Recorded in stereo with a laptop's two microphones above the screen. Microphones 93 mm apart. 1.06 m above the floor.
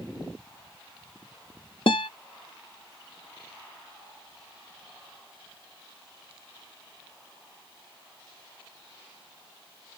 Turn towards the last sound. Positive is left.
turn(degrees=65)  # may be behind; listen again after turning